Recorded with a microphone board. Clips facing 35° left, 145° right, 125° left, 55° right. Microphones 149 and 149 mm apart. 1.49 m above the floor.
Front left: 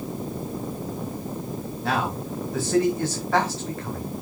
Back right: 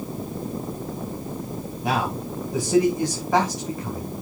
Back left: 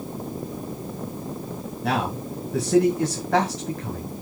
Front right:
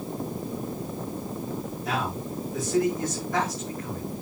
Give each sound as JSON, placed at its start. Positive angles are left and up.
{"t": 1.8, "sound": "a man speaking", "azimuth_deg": 140, "distance_m": 1.9}